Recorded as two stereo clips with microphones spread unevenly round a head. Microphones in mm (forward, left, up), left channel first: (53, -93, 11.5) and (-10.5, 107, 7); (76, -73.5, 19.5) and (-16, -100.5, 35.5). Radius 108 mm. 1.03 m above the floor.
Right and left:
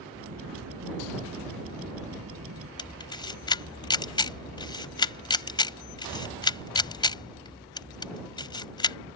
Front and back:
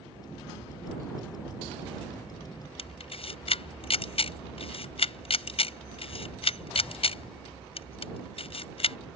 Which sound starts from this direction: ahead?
A camera shutter, at 2.8 s.